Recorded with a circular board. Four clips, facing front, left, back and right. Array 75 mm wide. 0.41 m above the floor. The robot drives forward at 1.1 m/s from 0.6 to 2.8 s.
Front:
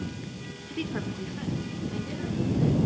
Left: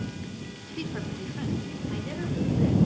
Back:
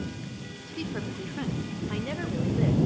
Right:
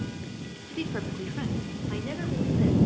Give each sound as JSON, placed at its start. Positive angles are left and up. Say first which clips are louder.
{"t": 0.7, "sound": "a woman speaking", "louder": "right 2 dB, front 2 dB", "azimuth_deg": -25, "distance_m": 1.0}